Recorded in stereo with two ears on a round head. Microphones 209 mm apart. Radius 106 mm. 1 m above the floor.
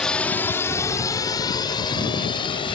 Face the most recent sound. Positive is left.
turn(degrees=25)  # may be behind; listen again after turning